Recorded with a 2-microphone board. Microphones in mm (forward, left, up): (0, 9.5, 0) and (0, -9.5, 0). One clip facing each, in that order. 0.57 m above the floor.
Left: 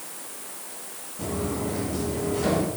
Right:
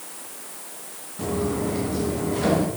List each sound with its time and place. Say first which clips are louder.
1.2 s footsteps: right 4 dB; 65° right (ahead or behind), 5 m; by 2.7 s 80° right, 4.5 m